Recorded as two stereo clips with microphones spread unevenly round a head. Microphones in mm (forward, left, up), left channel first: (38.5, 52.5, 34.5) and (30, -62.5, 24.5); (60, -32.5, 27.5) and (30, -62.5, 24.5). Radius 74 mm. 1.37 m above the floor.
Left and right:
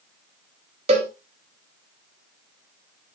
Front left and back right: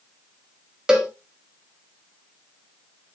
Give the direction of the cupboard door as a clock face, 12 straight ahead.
I don't hear a cupboard door.